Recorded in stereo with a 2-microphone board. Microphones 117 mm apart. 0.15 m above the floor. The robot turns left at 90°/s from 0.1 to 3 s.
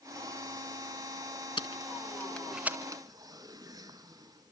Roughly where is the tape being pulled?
Left.